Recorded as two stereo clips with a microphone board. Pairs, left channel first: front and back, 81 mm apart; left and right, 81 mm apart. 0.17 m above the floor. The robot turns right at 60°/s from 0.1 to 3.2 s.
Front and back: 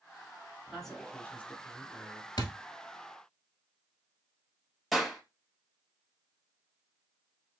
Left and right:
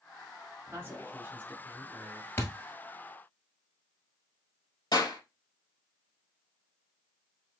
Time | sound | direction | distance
0.7 | a man speaking | 90° right | 1.5 m
2.4 | a thud | 30° left | 1.2 m
4.9 | a clap | 90° left | 3.5 m